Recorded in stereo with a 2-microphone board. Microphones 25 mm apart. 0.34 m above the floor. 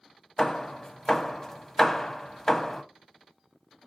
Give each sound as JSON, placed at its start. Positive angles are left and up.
{"t": 0.4, "sound": "hammering", "side_deg": 20, "distance_m": 0.6}